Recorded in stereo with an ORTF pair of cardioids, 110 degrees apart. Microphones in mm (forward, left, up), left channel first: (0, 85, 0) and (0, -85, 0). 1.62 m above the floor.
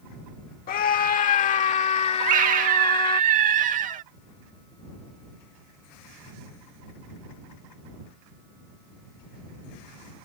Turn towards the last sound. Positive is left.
turn(degrees=-50)